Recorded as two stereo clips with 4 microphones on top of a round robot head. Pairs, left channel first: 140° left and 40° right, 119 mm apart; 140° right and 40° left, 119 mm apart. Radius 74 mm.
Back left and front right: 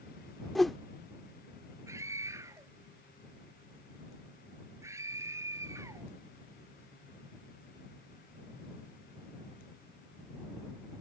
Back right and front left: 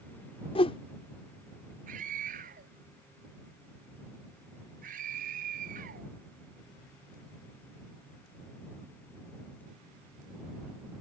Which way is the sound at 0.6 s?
130° right.